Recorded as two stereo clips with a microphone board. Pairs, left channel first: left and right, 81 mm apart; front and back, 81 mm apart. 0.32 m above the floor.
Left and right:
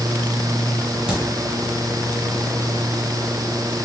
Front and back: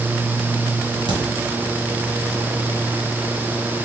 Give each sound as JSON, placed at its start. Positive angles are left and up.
{"t": 1.1, "sound": "a crack", "azimuth_deg": -165, "distance_m": 1.3}